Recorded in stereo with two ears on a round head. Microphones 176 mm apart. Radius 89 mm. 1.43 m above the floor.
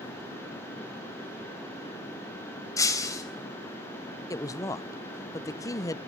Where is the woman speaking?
15° left (ahead or behind), 0.5 m.